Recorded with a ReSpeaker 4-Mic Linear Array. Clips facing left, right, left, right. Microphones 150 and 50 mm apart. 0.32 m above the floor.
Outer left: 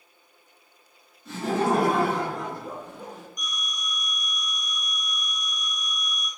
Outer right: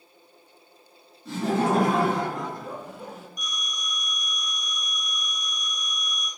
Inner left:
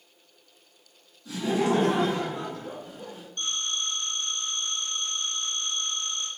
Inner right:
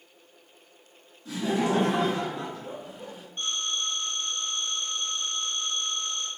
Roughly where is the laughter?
Right.